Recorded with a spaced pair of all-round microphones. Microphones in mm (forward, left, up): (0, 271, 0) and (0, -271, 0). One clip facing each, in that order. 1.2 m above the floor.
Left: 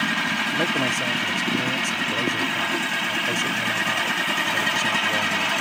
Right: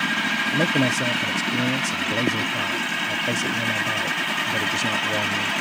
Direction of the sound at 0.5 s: 50° right (ahead or behind).